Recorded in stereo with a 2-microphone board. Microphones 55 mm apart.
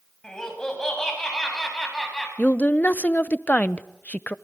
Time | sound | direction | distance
0.2 | laughter | 10° left (ahead or behind) | 8.5 m
2.4 | a woman speaking | 25° left (ahead or behind) | 0.7 m